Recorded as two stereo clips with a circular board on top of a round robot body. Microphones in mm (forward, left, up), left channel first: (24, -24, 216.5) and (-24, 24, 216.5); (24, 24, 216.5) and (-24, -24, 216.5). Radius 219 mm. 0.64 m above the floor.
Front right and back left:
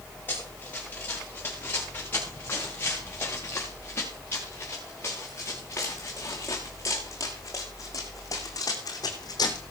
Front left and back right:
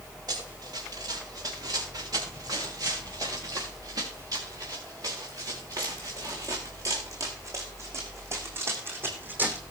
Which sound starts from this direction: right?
Running footsteps, at 0.3 s.